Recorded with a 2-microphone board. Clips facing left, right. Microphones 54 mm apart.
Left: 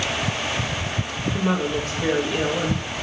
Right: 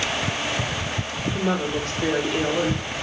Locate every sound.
1.3 s a woman speaking: 5° left (ahead or behind), 2 m